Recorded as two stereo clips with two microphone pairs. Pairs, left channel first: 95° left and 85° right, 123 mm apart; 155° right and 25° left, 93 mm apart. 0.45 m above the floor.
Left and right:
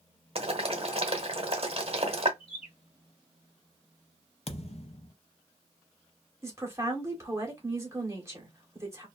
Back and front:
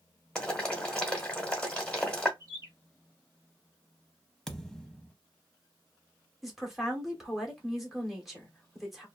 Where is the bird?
75° left, 1.4 m.